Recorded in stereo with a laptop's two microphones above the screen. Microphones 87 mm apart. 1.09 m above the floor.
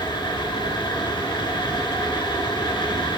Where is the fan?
65° left (ahead or behind), 5 m.